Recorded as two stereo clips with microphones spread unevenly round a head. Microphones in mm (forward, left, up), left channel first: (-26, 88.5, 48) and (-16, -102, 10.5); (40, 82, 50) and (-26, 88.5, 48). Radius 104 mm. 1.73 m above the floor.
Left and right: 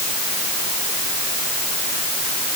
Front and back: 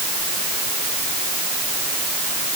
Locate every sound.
Only background noise.